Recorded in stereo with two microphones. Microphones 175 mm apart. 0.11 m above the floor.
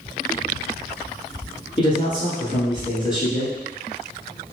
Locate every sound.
1.8 s a man speaking: 25° left (ahead or behind), 1.5 m